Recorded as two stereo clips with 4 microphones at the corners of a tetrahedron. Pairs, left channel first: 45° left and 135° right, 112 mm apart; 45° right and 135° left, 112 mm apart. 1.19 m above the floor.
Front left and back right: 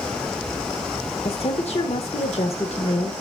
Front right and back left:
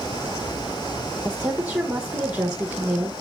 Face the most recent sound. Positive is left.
turn(degrees=60)